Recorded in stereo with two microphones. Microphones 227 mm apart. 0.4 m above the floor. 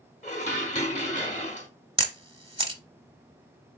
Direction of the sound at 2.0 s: 25° right (ahead or behind).